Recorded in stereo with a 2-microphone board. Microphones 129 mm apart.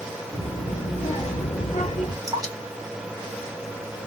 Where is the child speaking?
45° left (ahead or behind), 1.2 m; by 2.1 s 65° left (ahead or behind), 1.7 m.